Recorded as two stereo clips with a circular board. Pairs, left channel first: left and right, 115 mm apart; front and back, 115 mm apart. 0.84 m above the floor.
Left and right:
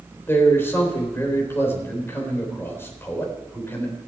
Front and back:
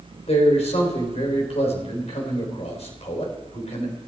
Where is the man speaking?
20° left, 3.5 m.